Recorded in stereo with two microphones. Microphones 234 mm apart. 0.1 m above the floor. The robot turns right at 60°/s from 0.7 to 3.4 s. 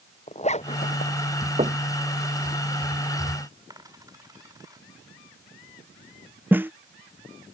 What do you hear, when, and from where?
0.3 s a zipper: 30° left (ahead or behind); by 1.2 s 55° left (ahead or behind)
1.6 s knocking: 30° right (ahead or behind); by 1.9 s 15° right (ahead or behind)
3.7 s a dropped coin: 15° right (ahead or behind)
6.5 s a snare drum: 10° right (ahead or behind)